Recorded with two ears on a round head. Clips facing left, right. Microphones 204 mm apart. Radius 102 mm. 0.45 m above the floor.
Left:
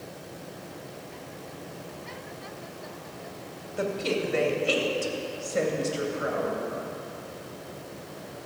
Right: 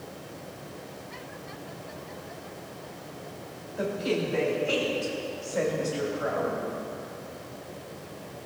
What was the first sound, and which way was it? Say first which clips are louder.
A woman speaking: even; 60° left (ahead or behind).